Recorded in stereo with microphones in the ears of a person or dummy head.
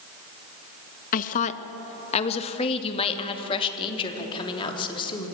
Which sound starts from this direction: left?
A woman speaking, at 1.1 s.